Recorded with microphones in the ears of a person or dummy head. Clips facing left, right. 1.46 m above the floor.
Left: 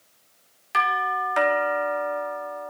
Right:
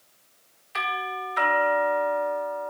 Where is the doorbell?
75° left (ahead or behind), 3.5 m.